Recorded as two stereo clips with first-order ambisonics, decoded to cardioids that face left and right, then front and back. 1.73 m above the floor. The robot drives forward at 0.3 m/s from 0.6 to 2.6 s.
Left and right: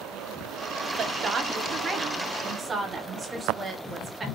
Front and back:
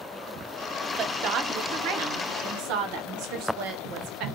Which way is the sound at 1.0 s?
145° right.